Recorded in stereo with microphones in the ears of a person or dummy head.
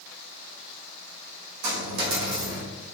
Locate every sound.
1.6 s a dropped coin: 65° right (ahead or behind), 1.9 m